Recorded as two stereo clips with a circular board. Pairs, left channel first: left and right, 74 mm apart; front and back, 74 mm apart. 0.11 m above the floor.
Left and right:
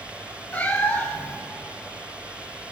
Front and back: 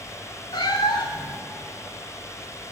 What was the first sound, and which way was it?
A cat meowing, 20° left.